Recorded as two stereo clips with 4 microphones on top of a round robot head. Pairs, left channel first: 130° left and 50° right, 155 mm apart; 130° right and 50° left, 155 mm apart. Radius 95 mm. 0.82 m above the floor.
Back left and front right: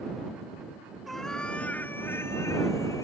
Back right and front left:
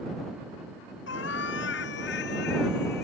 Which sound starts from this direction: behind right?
A cat meowing, at 1.1 s.